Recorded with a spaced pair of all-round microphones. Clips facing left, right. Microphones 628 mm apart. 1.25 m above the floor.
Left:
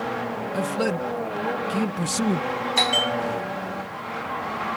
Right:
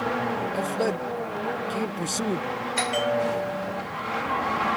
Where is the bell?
85° left.